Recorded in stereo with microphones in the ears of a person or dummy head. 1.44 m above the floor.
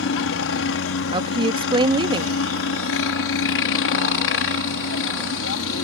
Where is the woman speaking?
30° right (ahead or behind).